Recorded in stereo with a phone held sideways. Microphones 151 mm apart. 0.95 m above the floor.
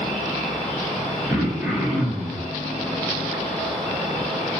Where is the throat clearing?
10° right (ahead or behind), 0.6 m.